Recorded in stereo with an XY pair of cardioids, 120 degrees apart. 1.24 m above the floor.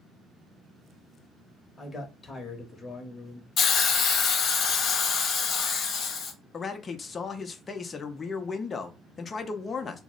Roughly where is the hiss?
Ahead left.